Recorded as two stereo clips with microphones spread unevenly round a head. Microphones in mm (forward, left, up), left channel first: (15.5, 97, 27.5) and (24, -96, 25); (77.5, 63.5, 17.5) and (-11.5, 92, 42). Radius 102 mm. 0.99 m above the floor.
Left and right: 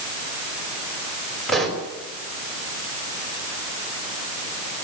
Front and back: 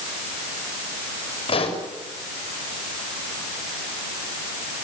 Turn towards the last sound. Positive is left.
turn(degrees=5)